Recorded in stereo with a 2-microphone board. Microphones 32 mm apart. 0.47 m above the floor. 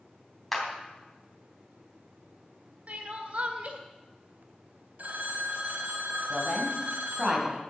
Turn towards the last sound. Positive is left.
turn(degrees=-25)  # may be behind; listen again after turning